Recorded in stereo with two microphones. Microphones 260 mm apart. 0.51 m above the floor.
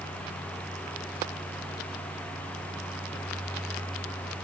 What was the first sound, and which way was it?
Only background noise.